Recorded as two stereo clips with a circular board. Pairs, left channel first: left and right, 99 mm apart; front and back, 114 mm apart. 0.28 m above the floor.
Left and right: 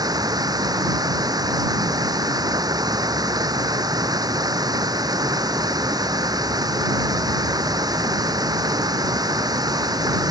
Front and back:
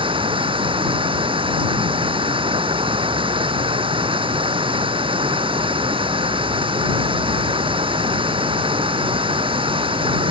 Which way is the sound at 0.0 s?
140° right.